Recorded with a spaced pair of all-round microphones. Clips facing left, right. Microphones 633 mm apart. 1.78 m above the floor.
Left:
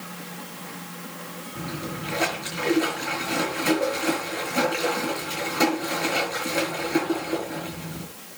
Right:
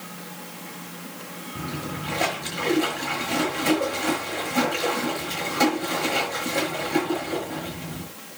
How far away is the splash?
About 6.5 m.